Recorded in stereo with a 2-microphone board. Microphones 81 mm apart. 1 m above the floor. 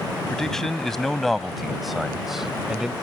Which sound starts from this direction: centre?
A man speaking, at 0.3 s.